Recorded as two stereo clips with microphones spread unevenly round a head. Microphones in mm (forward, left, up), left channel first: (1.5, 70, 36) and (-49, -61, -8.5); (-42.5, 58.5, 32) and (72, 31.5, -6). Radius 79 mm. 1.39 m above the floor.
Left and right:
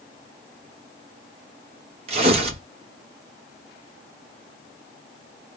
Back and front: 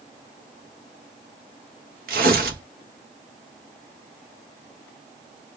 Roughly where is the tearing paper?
Ahead right.